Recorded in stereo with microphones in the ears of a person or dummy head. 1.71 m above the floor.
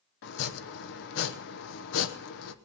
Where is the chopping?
65° left (ahead or behind), 1.0 m.